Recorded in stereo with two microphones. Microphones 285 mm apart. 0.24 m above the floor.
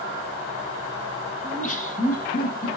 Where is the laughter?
25° left (ahead or behind), 1.7 m; by 2.7 s 30° left (ahead or behind), 2.5 m.